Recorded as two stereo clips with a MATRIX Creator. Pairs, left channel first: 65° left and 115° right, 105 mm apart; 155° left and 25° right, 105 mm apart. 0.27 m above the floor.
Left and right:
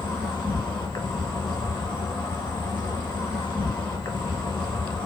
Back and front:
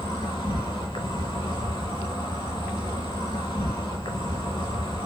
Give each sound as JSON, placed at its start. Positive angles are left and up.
{"t": 0.0, "sound": "an insect", "azimuth_deg": 115, "distance_m": 1.1}